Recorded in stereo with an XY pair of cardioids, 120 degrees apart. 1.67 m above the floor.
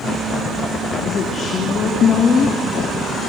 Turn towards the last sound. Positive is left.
turn(degrees=45)